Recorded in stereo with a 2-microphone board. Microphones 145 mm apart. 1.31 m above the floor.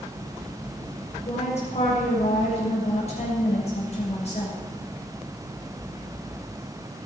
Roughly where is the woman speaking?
Left.